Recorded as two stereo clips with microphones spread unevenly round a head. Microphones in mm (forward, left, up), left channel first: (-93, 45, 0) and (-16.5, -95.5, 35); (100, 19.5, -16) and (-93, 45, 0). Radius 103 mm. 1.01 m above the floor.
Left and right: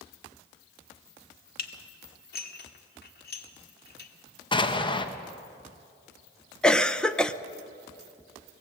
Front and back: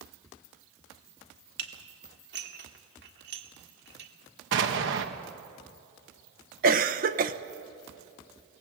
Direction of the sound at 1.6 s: 140° left.